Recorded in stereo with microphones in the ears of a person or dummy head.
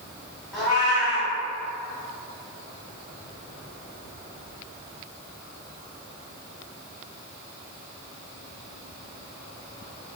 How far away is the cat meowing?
About 1.6 m.